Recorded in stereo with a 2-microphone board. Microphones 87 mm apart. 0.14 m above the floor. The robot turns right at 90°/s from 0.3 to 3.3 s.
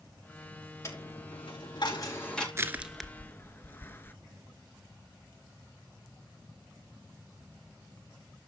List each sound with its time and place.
0.8 s a dropped coin: 30° left (ahead or behind), 5 m; by 2.5 s 5° left (ahead or behind), 5 m
2.5 s crushing: 30° right (ahead or behind), 1.0 m; by 4.1 s 25° left (ahead or behind), 1.0 m